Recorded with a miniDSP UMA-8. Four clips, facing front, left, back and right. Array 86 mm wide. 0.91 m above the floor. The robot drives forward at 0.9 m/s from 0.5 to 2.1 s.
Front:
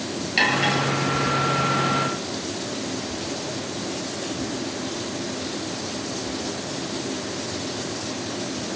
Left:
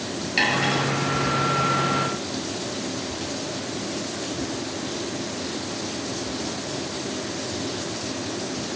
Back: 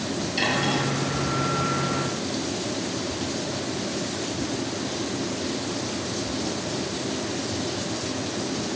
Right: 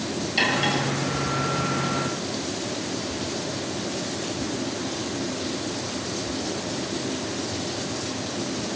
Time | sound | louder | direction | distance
0.4 | cutlery clinking | left 1 dB, front 4 dB | 40° left | 9.5 m